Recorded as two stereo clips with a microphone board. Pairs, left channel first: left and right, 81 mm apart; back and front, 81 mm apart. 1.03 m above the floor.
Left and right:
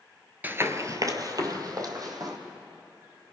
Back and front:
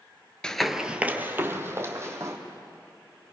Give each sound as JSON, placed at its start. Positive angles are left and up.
{"t": 0.4, "sound": "running footsteps", "azimuth_deg": -115, "distance_m": 1.0}